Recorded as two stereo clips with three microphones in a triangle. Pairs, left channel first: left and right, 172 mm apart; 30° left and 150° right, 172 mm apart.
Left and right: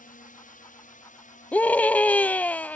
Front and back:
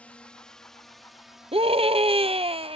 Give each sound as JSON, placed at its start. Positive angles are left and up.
{"t": 0.0, "sound": "a drone", "azimuth_deg": 110}
{"t": 1.5, "sound": "a scream", "azimuth_deg": 170}